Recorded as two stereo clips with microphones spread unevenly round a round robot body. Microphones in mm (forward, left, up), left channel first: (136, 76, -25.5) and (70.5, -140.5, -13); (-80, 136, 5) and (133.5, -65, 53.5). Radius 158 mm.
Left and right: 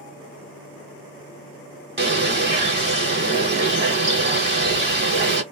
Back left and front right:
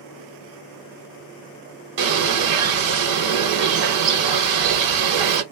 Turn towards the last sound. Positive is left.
turn(degrees=-60)